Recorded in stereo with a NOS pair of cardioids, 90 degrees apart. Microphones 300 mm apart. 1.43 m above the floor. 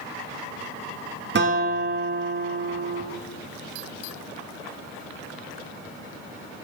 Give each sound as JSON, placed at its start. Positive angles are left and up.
{"t": 1.4, "sound": "a guitar", "azimuth_deg": -40, "distance_m": 1.7}